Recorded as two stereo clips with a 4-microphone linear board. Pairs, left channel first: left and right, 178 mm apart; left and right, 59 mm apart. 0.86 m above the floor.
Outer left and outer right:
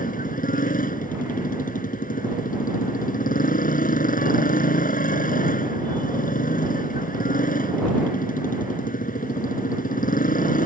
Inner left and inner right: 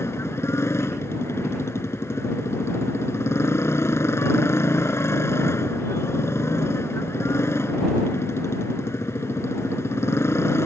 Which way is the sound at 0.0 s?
50° left (ahead or behind).